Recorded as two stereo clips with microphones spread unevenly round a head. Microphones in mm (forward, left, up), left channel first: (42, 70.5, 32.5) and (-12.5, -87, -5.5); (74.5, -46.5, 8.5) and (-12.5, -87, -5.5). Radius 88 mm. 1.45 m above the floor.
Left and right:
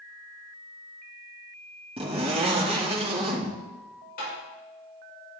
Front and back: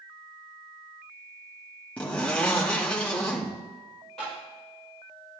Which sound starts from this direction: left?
Tapping, at 4.2 s.